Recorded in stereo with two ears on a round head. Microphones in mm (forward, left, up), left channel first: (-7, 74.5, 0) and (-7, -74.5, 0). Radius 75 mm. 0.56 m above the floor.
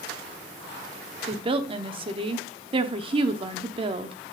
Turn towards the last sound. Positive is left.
turn(degrees=-35)  # may be behind; listen again after turning